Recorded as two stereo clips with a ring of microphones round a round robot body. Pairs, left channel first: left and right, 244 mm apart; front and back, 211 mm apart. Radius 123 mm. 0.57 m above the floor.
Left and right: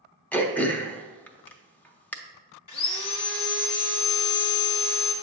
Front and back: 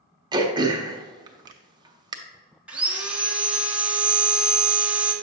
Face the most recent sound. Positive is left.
turn(degrees=95)